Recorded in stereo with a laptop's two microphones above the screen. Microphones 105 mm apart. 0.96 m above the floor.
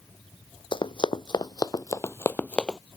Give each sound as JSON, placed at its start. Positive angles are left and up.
{"t": 0.7, "sound": "running footsteps", "side_deg": 55}